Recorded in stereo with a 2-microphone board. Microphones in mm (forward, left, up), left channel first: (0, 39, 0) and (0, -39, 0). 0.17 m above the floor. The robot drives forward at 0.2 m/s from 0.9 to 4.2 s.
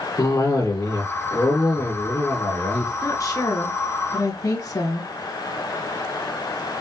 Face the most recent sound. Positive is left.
turn(degrees=45)  # may be behind; listen again after turning